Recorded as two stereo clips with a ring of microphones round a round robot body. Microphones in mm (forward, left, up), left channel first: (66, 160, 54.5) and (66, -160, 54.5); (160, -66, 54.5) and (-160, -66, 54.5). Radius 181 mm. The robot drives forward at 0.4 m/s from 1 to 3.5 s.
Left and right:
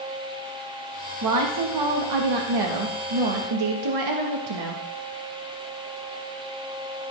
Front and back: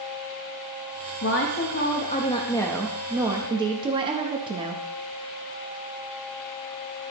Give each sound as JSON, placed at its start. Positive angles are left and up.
{"t": 1.2, "sound": "a woman speaking", "azimuth_deg": -55, "distance_m": 1.2}